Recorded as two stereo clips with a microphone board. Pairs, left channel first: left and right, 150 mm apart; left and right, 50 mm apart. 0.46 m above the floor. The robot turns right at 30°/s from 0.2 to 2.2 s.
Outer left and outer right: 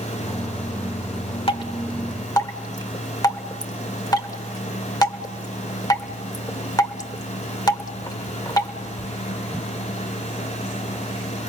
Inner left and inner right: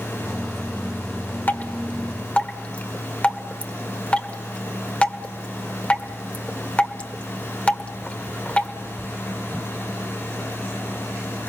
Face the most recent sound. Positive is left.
turn(degrees=25)  # may be behind; listen again after turning